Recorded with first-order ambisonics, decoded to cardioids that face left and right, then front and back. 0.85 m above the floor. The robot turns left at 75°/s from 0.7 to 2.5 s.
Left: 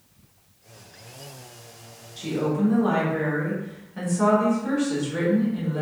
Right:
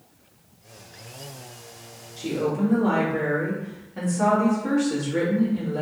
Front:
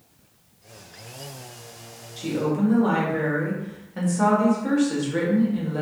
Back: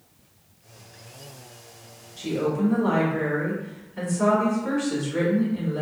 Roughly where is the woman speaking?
Ahead left.